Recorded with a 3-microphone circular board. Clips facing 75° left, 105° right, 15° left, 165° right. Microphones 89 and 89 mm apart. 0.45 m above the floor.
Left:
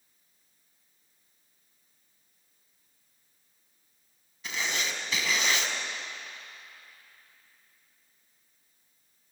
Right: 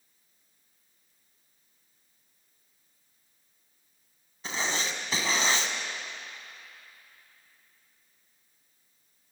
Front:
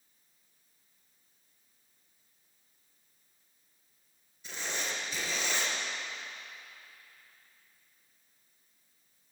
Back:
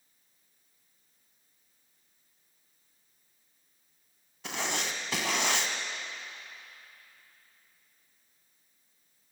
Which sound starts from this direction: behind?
Writing, at 4.4 s.